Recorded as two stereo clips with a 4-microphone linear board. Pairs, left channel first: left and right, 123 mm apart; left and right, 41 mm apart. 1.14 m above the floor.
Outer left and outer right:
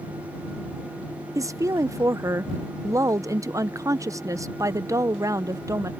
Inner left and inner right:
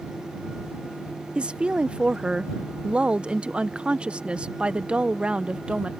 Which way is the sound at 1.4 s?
25° right (ahead or behind).